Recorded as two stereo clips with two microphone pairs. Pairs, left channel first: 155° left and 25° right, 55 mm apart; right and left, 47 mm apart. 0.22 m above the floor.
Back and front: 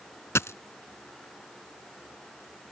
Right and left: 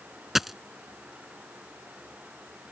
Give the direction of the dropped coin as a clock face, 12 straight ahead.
6 o'clock.